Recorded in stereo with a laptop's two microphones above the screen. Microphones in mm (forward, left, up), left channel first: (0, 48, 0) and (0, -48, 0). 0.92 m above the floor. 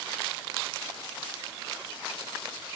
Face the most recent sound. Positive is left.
No sound to turn to.